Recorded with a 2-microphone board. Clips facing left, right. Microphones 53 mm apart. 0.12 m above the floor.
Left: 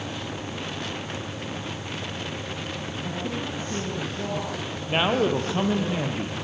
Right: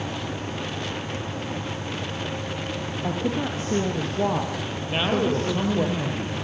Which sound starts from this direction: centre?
A man speaking, at 4.9 s.